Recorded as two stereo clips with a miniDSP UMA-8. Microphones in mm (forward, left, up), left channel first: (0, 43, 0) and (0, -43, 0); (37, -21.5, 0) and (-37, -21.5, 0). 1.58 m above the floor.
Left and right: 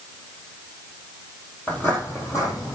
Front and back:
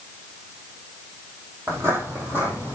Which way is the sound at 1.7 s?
155° left.